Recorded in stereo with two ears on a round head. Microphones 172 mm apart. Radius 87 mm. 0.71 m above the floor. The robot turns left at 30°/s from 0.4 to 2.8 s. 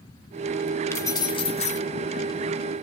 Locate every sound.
0.9 s keys jangling: 15° left (ahead or behind), 1.2 m; by 1.8 s 40° left (ahead or behind), 1.2 m